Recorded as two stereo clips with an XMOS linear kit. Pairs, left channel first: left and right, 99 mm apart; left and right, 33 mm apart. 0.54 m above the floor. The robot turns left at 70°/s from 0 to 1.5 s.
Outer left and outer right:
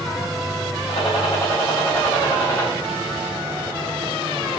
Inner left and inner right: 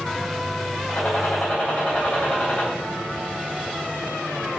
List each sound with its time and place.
0.9 s a gunshot: 70° left, 3.5 m; by 2.7 s 30° left, 3.5 m